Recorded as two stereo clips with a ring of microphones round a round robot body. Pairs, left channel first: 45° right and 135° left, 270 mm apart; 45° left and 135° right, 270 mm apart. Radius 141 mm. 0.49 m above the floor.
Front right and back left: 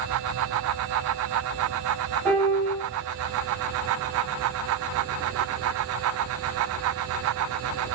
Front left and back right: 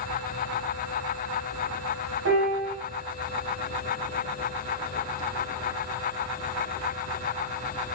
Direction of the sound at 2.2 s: 130° right.